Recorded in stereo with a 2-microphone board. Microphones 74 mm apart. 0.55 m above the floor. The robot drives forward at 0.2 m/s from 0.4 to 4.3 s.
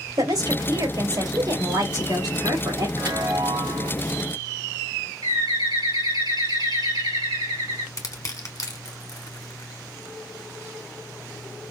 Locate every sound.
0.2 s a woman speaking: 70° right (ahead or behind), 2.5 m
3.0 s a chime: 70° right (ahead or behind), 3 m; by 3.9 s 65° right (ahead or behind), 3 m
5.2 s a bird: 75° right (ahead or behind), 3 m
8.0 s crushing: 45° left (ahead or behind), 1.1 m